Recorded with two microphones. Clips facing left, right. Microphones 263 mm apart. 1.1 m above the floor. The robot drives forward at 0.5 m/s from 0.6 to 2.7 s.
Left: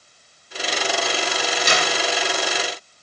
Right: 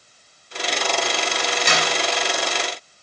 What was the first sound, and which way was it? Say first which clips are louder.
A clap: left 1 dB; 55° right (ahead or behind).